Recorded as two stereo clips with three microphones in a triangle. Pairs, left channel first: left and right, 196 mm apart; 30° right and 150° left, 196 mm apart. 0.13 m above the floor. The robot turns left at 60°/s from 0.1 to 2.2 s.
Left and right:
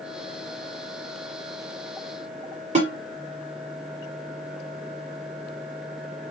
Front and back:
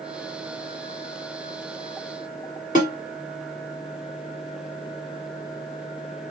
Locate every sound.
2.8 s a snare drum: 55° right, 2 m